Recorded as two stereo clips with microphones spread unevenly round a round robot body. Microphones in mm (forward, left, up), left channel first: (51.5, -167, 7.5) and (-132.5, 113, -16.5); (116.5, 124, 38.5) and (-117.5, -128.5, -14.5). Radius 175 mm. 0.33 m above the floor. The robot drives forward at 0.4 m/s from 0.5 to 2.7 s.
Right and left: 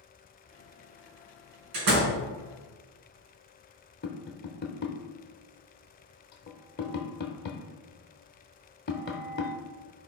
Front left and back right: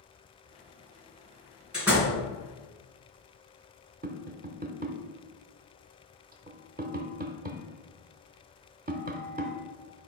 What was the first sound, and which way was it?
A door slam, 140° left.